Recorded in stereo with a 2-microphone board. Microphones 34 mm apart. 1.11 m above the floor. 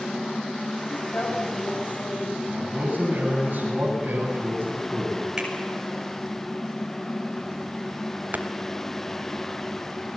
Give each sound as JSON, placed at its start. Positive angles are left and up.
{"t": 0.9, "sound": "a woman speaking", "side_deg": 50, "distance_m": 10.0}
{"t": 2.5, "sound": "a man speaking", "side_deg": -55, "distance_m": 9.0}
{"t": 5.4, "sound": "a finger snap", "side_deg": -25, "distance_m": 5.5}
{"t": 8.3, "sound": "tapping", "side_deg": -55, "distance_m": 1.7}